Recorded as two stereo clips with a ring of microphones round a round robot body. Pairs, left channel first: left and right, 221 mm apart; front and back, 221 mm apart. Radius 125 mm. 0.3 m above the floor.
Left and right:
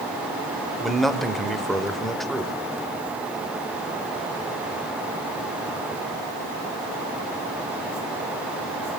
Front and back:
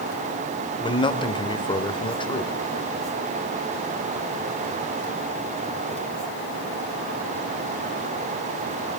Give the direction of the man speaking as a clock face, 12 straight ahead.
12 o'clock.